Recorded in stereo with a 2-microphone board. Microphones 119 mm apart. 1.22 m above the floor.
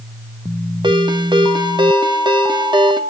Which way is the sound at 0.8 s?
40° right (ahead or behind).